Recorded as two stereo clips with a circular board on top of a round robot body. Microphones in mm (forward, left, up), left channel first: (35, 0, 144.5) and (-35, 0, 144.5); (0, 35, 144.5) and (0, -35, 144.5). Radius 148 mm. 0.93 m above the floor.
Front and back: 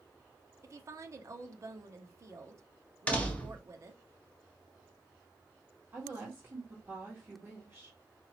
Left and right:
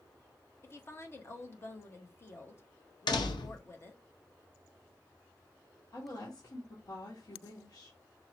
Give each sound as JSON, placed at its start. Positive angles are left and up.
{"t": 0.6, "sound": "a woman speaking", "azimuth_deg": 140, "distance_m": 1.1}
{"t": 3.1, "sound": "a door slam", "azimuth_deg": 70, "distance_m": 0.6}
{"t": 5.9, "sound": "a woman speaking", "azimuth_deg": 115, "distance_m": 1.8}